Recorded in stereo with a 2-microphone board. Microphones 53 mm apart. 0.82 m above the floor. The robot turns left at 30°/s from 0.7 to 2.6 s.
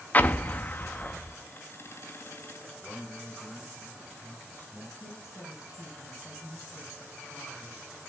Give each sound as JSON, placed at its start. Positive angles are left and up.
{"t": 0.1, "sound": "an explosion", "side_deg": 35, "distance_m": 0.6}
{"t": 2.8, "sound": "a man speaking", "side_deg": 40, "distance_m": 3.0}
{"t": 5.0, "sound": "a woman speaking", "side_deg": 80, "distance_m": 4.5}